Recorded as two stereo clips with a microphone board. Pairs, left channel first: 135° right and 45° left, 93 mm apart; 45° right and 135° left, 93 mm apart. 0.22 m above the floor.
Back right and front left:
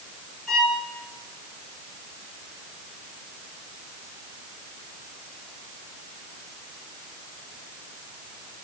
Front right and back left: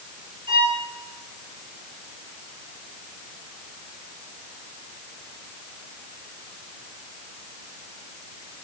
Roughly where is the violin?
Behind left.